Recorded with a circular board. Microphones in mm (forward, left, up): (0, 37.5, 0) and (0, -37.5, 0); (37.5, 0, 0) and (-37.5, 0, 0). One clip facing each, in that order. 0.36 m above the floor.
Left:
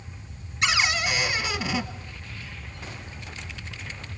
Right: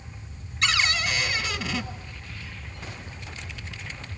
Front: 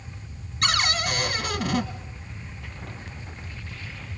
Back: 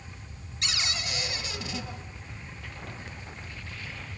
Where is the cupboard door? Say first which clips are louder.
Left 1 dB, front 10 dB; 15° left, 1.7 m.